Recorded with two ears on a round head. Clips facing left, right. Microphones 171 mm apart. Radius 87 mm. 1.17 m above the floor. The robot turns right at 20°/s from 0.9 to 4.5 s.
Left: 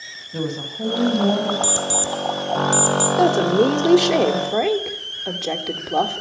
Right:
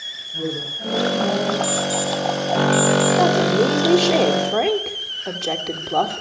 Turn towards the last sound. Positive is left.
turn(degrees=0)  # may be behind; listen again after turning